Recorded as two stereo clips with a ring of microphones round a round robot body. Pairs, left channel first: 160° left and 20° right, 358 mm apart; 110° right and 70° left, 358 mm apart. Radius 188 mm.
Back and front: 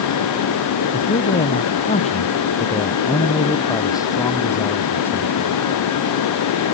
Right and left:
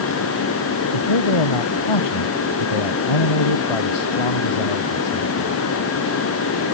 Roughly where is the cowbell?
I don't hear a cowbell.